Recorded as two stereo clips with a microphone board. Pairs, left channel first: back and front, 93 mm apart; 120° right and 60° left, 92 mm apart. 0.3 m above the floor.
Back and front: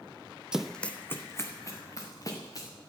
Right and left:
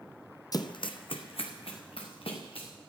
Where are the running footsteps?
80° right, 0.5 m; by 2.7 s 130° right, 2.5 m.